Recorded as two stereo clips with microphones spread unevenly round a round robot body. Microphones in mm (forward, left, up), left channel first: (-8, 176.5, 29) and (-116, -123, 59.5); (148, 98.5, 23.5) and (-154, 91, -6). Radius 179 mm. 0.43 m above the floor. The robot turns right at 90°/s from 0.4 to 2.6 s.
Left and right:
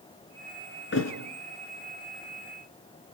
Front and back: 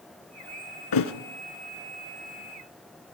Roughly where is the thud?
Ahead.